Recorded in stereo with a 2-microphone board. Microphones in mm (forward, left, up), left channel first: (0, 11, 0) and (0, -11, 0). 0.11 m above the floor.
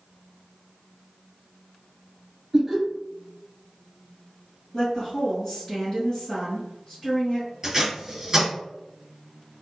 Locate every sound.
2.5 s laughter: 30° right (ahead or behind), 1.5 m
4.7 s a woman speaking: 25° left (ahead or behind), 1.6 m
7.6 s tape being pulled: 25° right (ahead or behind), 1.9 m